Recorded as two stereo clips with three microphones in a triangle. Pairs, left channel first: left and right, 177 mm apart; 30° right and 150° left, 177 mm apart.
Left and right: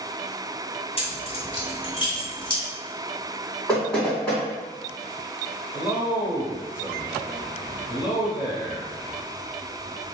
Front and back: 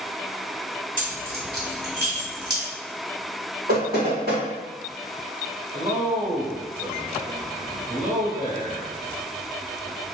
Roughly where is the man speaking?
Behind.